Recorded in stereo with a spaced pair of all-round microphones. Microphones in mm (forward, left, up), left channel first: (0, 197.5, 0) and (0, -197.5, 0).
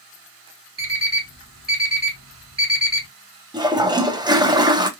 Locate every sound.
0.8 s an alarm clock: 45° right (ahead or behind), 1.5 m
3.5 s a toilet flushing: 10° right (ahead or behind), 0.5 m